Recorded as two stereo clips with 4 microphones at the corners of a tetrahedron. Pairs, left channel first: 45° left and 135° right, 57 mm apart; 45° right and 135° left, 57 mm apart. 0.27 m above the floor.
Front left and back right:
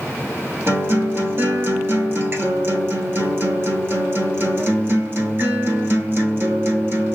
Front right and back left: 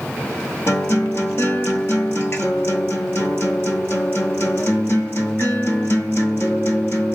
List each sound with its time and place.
0.7 s a guitar: 90° right, 1.1 m